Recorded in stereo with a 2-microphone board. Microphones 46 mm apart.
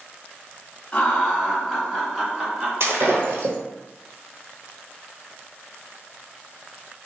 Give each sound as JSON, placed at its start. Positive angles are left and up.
{"t": 0.9, "sound": "laughter", "side_deg": 20, "distance_m": 1.0}
{"t": 2.8, "sound": "breaking glass", "side_deg": -65, "distance_m": 1.2}